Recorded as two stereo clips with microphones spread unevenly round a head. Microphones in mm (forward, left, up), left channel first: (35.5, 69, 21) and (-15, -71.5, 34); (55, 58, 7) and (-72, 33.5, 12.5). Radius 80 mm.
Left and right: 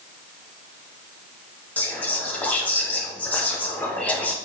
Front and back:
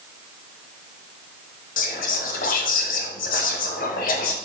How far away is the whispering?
About 0.7 m.